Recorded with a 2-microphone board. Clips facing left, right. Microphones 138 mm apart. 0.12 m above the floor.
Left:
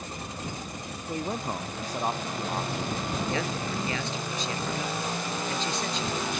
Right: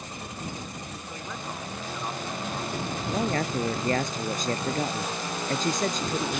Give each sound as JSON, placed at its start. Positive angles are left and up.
{"t": 1.1, "sound": "a man speaking", "side_deg": 40}
{"t": 3.1, "sound": "a man speaking", "side_deg": -50}